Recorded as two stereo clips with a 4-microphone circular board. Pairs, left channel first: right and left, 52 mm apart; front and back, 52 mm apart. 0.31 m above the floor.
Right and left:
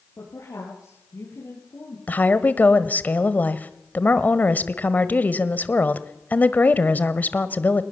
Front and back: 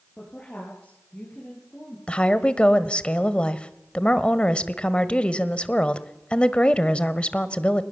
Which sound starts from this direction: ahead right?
A woman speaking, at 2.1 s.